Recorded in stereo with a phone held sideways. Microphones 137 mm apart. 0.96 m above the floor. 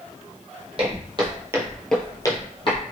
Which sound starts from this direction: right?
Footsteps, at 0.8 s.